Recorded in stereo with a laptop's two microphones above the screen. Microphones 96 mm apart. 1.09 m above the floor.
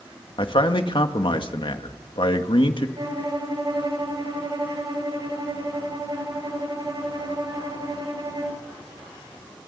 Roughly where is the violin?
Right.